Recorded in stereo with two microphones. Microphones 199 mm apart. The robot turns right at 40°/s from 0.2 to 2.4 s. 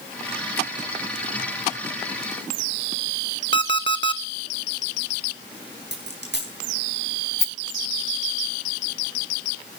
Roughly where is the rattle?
Left.